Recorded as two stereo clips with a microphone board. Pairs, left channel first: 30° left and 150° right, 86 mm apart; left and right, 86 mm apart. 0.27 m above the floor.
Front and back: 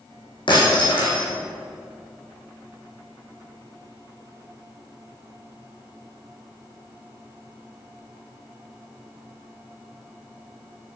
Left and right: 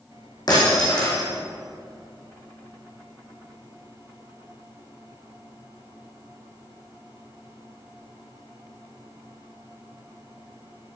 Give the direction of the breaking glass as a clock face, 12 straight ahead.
10 o'clock.